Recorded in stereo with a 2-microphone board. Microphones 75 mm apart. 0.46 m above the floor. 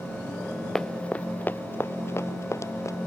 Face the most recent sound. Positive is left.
turn(degrees=45)  # may be behind; listen again after turning